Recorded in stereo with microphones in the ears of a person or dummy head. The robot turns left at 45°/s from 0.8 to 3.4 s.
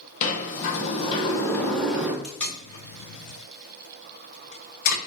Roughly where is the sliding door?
Ahead left.